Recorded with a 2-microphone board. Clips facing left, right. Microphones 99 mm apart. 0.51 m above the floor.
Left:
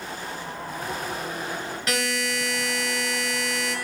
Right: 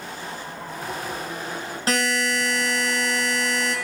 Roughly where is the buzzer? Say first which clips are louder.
Right 5 dB; right.